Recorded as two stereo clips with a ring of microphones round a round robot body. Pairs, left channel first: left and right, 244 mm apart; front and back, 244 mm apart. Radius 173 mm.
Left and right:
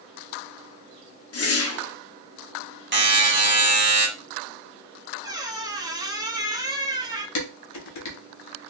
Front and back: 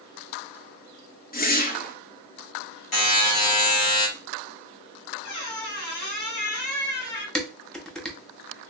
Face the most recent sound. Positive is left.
turn(degrees=90)